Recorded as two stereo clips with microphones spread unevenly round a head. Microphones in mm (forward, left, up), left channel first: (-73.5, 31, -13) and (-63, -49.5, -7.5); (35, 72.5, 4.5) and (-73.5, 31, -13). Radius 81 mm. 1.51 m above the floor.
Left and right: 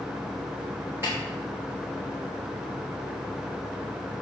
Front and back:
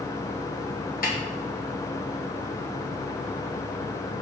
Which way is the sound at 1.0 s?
5° right.